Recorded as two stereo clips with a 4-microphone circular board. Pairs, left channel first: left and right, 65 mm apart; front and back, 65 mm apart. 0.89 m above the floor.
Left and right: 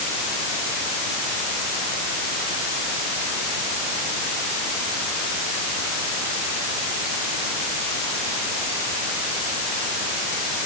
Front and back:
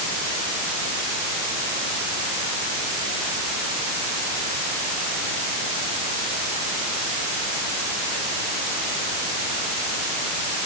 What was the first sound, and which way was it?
Only background noise.